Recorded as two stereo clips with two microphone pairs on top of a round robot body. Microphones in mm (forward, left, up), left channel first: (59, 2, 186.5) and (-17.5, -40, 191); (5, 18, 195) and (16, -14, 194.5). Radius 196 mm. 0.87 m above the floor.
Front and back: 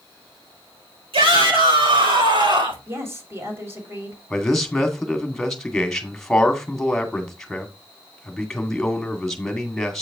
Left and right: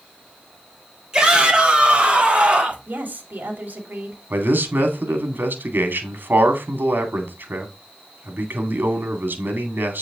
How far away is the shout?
About 4.5 m.